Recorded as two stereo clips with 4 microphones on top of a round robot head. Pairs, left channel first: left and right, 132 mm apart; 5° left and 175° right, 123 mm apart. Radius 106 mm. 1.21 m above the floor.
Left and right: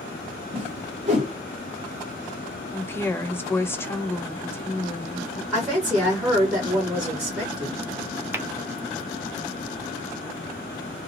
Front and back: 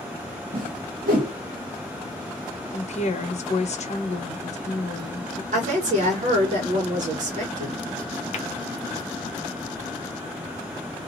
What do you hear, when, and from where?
0.5 s a whoosh: 145° right, 1.0 m
2.7 s a woman speaking: 20° left, 0.9 m
5.5 s a woman speaking: 170° right, 1.2 m
8.3 s tapping: 15° right, 0.8 m